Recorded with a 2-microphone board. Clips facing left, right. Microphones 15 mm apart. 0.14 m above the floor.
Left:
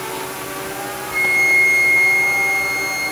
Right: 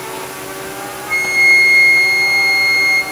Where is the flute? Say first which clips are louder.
Right 4 dB; 50° right (ahead or behind), 2.5 m.